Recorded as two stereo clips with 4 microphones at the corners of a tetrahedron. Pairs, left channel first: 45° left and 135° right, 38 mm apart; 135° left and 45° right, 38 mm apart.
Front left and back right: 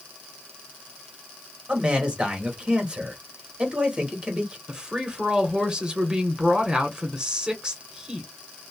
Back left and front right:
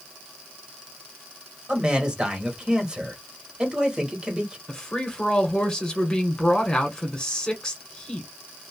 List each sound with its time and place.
1.7 s a man speaking: 100° right, 1.2 m
4.7 s a woman speaking: 175° right, 1.4 m